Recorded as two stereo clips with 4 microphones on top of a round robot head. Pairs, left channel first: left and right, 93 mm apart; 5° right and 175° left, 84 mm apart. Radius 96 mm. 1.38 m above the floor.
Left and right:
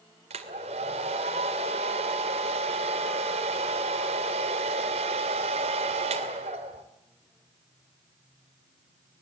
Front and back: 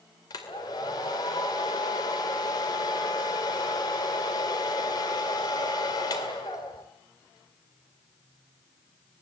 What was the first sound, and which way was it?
A hair dryer, 60° right.